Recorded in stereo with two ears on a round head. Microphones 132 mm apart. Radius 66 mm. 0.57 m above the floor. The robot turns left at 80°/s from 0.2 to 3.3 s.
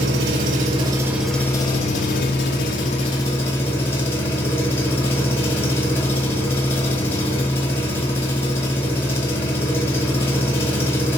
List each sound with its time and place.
0.0 s an engine running: 95° right, 1.0 m; by 11.2 s 20° left, 1.0 m